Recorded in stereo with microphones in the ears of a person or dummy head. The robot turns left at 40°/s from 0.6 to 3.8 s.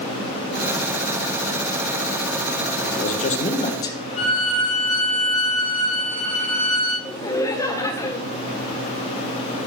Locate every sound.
2.8 s a man speaking: 60° left, 1.3 m; by 4.0 s 20° left, 1.3 m
4.2 s a violin: 40° left (ahead or behind), 1.5 m
7.0 s laughter: 20° left (ahead or behind), 1.0 m